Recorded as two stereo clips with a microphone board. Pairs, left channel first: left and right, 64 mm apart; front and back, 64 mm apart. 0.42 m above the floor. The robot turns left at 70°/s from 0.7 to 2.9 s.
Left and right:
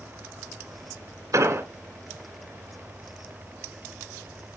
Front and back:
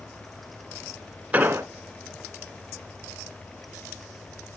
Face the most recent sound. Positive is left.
turn(degrees=140)